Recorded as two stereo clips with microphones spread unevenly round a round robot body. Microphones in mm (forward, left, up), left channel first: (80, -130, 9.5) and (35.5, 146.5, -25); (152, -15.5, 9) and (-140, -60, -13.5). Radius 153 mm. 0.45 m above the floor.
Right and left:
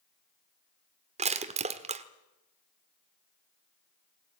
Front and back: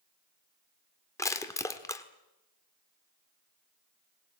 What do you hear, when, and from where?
1.2 s crushing: 85° left, 1.2 m